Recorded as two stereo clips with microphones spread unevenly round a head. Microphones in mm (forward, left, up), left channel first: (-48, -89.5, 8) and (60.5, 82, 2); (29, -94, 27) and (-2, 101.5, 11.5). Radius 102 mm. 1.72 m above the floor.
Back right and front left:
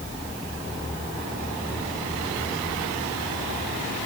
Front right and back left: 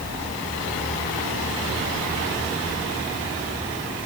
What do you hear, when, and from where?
Only background noise.